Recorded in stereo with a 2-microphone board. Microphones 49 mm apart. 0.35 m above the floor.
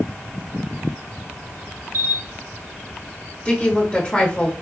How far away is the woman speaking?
About 1.2 m.